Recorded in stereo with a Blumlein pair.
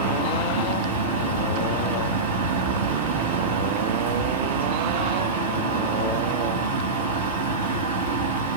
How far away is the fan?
About 2 m.